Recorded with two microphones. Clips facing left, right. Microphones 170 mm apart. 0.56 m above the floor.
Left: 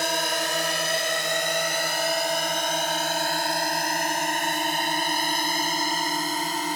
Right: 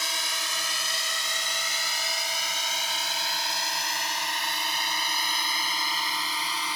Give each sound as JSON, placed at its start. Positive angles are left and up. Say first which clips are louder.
{"t": 0.0, "sound": "a drone", "louder": "left 11 dB", "side_deg": 60}